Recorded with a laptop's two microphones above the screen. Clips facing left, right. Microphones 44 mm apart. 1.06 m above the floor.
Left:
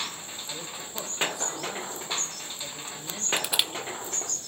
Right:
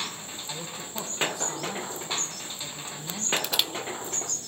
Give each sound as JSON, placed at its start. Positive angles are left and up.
{"t": 0.5, "sound": "a man speaking", "side_deg": 15, "distance_m": 3.5}
{"t": 3.4, "sound": "crushing", "side_deg": 15, "distance_m": 0.6}